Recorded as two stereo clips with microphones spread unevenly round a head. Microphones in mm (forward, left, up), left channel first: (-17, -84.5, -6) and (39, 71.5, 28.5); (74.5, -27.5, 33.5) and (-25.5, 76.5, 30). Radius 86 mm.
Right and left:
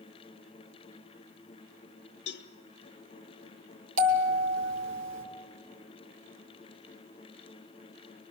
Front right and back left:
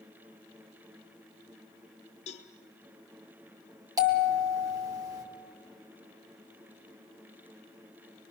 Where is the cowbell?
90° right, 1.0 m.